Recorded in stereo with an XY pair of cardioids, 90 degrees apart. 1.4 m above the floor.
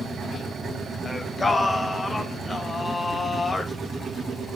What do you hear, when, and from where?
1.1 s singing: 25° left, 0.7 m